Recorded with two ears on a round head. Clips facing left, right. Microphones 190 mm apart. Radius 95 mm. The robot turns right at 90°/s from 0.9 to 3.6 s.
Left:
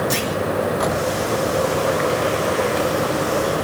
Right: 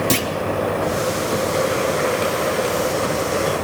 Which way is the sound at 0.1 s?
75° right (ahead or behind).